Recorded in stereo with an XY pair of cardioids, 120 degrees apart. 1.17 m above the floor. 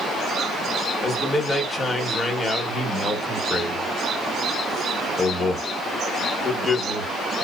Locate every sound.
1.0 s a man speaking: 25° left, 1.0 m